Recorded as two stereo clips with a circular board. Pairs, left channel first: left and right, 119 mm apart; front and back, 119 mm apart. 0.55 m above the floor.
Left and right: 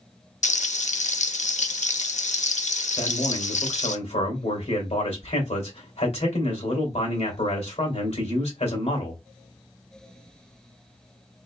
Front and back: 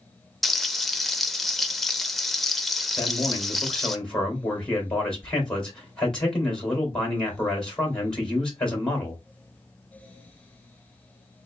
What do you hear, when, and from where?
0.4 s frying: 90° left, 0.5 m
3.0 s a man speaking: 80° left, 2.5 m